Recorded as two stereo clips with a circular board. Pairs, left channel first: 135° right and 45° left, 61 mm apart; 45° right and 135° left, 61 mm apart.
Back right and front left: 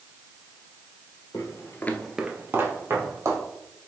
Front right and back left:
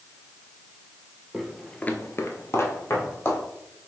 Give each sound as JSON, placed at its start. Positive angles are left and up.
{"t": 1.3, "sound": "footsteps", "azimuth_deg": -140, "distance_m": 0.8}